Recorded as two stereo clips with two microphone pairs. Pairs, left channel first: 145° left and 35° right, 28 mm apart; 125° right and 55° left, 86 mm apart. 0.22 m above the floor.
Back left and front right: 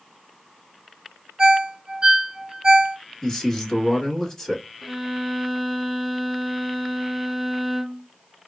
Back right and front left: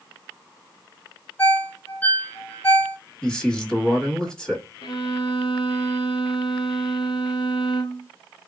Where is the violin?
130° right, 0.6 m.